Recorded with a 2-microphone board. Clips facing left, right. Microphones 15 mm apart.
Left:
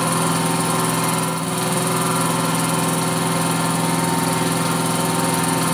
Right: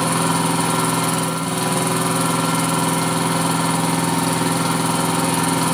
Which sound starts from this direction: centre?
An engine running, at 0.0 s.